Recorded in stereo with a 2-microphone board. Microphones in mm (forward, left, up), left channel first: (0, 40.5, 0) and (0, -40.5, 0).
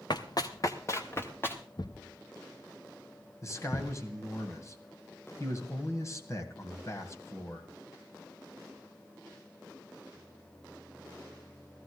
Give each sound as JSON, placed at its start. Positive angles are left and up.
{"t": 0.1, "sound": "running footsteps", "side_deg": 60, "distance_m": 1.0}
{"t": 1.8, "sound": "a thud", "side_deg": 60, "distance_m": 0.8}
{"t": 3.4, "sound": "a man speaking", "side_deg": 40, "distance_m": 2.0}